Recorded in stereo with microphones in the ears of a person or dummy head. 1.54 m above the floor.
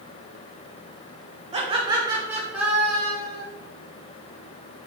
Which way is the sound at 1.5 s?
30° right (ahead or behind).